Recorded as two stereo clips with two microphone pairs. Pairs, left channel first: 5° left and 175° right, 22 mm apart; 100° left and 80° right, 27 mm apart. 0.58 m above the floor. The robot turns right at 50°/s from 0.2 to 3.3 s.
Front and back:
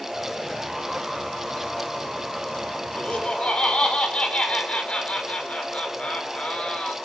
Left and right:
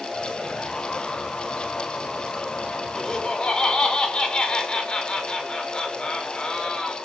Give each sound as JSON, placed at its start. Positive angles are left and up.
{"t": 3.0, "sound": "laughter", "azimuth_deg": 30, "distance_m": 6.0}